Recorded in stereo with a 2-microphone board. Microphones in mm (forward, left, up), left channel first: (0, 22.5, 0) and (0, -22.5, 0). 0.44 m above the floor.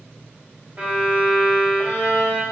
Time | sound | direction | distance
0.8 | a violin | 45° right (ahead or behind) | 1.9 m